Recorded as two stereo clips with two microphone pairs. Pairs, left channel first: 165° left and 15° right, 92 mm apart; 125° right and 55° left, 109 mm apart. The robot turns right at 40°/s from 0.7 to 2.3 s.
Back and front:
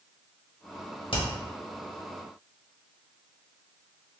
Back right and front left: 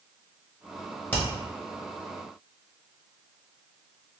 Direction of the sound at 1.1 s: 160° left.